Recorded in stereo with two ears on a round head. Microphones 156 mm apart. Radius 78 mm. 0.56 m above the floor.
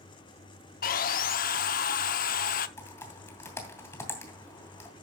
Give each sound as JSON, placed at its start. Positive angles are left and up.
{"t": 0.8, "sound": "sawing", "side_deg": 50, "distance_m": 0.7}
{"t": 2.8, "sound": "typing on a keyboard", "side_deg": 15, "distance_m": 2.5}